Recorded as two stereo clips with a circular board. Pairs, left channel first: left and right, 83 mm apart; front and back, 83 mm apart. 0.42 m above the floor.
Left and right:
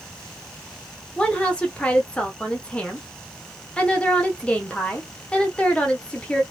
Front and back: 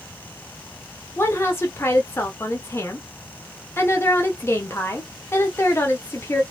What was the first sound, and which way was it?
A woman speaking, 25° left.